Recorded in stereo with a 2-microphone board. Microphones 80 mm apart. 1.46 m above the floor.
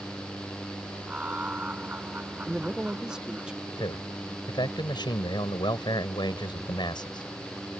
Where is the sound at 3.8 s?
70° left (ahead or behind).